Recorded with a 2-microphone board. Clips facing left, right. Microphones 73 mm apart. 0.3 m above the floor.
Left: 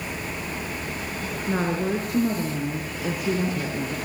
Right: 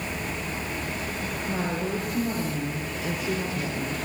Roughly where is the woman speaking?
Left.